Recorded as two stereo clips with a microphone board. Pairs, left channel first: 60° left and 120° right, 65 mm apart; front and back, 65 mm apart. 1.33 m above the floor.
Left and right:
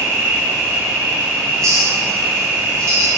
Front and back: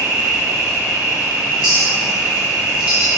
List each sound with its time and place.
0.0 s an insect: 125° right, 0.8 m
1.6 s a clink: 110° right, 1.2 m